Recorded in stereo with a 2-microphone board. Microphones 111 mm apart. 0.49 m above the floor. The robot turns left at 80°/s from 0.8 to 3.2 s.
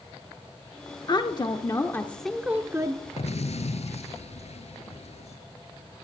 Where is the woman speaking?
100° left, 0.8 m; by 3.0 s 60° right, 0.8 m.